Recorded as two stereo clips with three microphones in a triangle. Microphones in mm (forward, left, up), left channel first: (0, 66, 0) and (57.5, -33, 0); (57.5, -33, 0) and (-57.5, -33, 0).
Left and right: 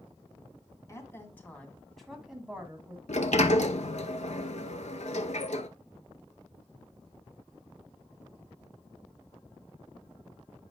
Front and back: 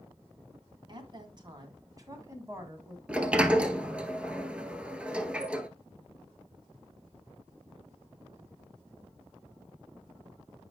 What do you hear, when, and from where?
0.9 s a woman speaking: 175° left, 2.0 m; by 3.0 s 120° right, 1.9 m
3.1 s a sliding door: 100° left, 0.7 m